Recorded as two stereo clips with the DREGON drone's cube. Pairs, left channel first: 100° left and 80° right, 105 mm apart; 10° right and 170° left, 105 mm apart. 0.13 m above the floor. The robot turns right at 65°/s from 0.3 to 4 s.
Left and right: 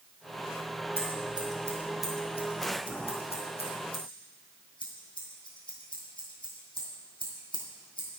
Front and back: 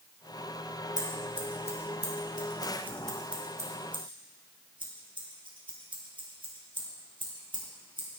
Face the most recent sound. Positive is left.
turn(degrees=135)